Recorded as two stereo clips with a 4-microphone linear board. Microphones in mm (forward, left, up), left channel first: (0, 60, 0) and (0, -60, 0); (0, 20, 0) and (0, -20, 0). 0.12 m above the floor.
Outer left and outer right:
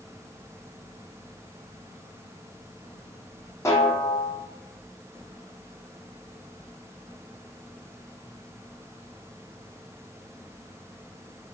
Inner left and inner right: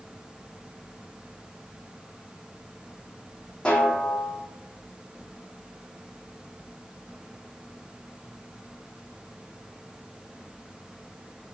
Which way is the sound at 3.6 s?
25° left (ahead or behind).